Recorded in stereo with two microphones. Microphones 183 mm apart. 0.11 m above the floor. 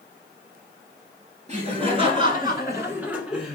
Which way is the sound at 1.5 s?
40° right (ahead or behind).